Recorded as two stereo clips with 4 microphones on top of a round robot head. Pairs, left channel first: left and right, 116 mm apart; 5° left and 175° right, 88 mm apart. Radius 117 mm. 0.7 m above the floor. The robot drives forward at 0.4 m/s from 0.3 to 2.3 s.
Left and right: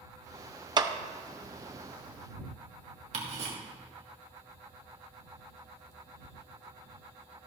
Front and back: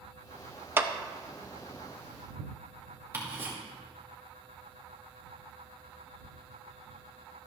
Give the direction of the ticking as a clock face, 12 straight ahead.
4 o'clock.